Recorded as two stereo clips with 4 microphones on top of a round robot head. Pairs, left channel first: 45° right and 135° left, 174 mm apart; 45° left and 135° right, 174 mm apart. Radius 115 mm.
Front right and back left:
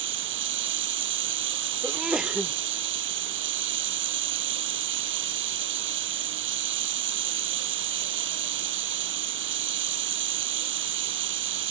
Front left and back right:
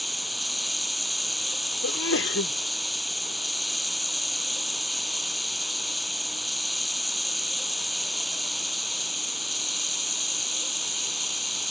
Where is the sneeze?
45° left.